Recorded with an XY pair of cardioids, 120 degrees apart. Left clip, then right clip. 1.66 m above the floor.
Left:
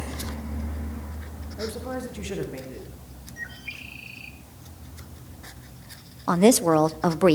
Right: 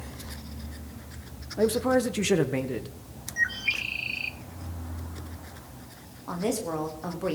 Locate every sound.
1.6 s a man speaking: 50° right, 1.4 m
3.4 s a bird: 50° right, 0.7 m
6.3 s a woman speaking: 65° left, 0.8 m